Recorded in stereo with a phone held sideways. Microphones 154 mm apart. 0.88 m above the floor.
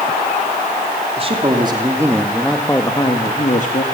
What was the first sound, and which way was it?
A man speaking, 35° right (ahead or behind).